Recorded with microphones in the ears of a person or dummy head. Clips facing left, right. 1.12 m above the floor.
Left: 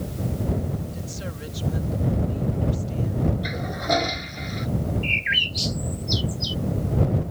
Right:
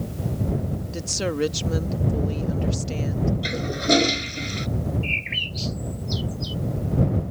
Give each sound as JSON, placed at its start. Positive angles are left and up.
{"t": 0.9, "sound": "a woman speaking", "side_deg": -80}
{"t": 3.4, "sound": "a toilet flushing", "side_deg": -45}
{"t": 5.0, "sound": "a bird", "side_deg": 10}